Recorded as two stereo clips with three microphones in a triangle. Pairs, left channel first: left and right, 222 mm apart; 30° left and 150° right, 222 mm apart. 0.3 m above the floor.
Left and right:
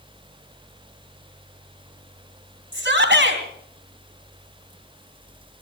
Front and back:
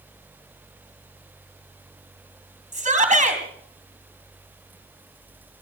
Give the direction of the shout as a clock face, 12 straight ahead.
3 o'clock.